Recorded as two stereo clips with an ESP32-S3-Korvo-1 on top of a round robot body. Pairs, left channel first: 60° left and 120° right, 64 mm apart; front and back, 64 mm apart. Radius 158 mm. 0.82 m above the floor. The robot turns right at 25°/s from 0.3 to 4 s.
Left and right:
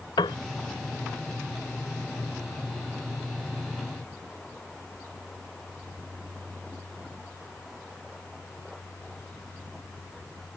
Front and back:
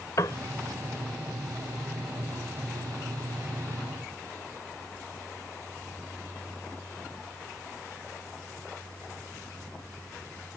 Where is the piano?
50° left.